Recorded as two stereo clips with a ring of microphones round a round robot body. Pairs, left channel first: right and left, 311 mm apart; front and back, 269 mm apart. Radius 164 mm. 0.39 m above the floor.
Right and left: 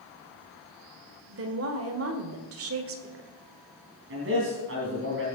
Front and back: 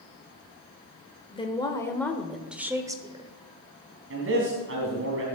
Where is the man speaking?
140° left, 3.5 m.